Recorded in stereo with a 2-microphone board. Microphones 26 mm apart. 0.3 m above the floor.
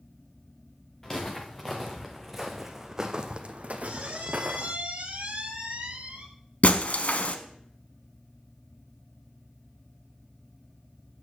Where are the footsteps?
20° left (ahead or behind), 1.6 m; by 4.8 s 75° right (ahead or behind), 1.1 m.